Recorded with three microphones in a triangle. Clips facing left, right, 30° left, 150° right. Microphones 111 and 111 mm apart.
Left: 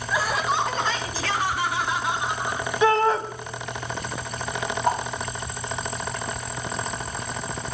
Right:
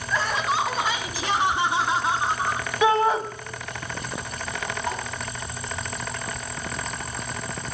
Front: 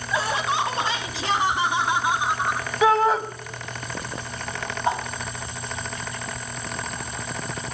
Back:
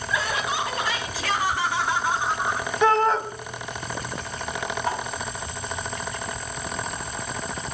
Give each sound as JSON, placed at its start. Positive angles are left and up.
{"t": 0.1, "sound": "laughter", "azimuth_deg": 20, "distance_m": 1.1}
{"t": 2.8, "sound": "a shout", "azimuth_deg": -40, "distance_m": 1.0}
{"t": 4.8, "sound": "a whoosh", "azimuth_deg": 80, "distance_m": 2.0}